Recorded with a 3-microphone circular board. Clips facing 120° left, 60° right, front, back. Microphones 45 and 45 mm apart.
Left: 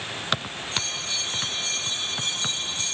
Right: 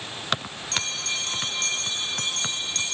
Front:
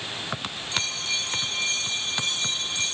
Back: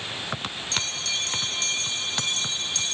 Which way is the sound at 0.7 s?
75° right.